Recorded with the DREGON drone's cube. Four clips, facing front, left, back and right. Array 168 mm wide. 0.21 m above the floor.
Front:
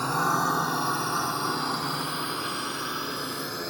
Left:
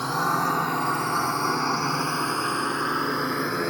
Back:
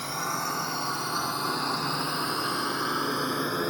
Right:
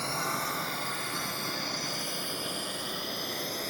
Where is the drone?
45° left; by 3.7 s 120° left.